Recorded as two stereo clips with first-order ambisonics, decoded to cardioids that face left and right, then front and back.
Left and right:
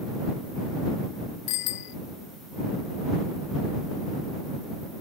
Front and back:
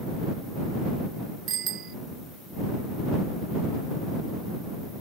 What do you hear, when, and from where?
1.5 s a bicycle bell: 125° left